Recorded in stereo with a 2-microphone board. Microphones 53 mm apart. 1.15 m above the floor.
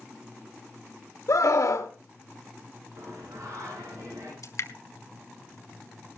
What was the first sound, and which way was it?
A scream, 85° left.